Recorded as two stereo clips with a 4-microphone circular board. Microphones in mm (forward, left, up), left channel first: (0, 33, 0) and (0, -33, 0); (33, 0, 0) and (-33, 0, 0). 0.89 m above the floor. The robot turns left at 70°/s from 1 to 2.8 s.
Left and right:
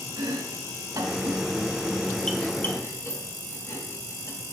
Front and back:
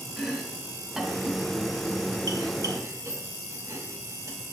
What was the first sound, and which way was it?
Chopping, 100° right.